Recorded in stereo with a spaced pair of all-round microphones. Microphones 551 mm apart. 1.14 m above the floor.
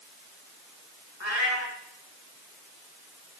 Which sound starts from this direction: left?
A cat meowing, at 1.2 s.